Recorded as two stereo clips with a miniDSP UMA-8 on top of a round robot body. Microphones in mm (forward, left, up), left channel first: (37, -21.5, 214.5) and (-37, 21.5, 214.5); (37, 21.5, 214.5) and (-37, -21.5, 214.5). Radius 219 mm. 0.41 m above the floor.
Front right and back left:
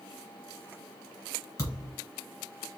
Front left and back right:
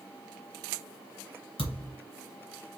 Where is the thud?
30° left, 2.5 m.